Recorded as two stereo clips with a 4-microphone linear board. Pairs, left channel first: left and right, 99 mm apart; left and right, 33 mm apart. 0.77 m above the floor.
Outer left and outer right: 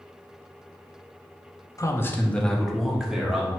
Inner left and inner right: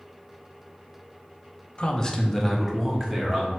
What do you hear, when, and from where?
1.8 s a man speaking: 35° left (ahead or behind), 0.6 m; by 3.5 s 10° right (ahead or behind), 1.6 m